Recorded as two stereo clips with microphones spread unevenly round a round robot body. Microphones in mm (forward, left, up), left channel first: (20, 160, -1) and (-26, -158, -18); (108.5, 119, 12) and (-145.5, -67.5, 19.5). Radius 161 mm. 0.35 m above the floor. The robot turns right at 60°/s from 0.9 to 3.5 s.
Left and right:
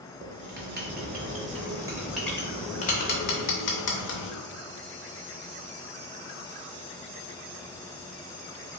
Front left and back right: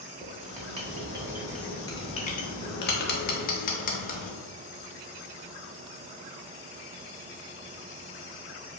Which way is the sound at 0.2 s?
90° right.